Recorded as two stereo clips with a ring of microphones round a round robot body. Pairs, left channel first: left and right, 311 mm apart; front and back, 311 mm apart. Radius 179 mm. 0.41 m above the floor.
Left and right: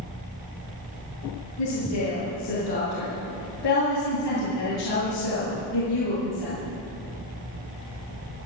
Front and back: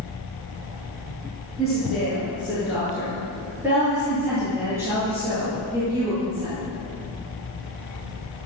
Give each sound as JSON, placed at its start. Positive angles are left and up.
{"t": 1.6, "sound": "a woman speaking", "azimuth_deg": 90, "distance_m": 6.0}